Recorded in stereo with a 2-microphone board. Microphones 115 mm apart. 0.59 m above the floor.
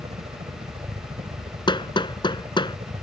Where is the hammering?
45° left (ahead or behind).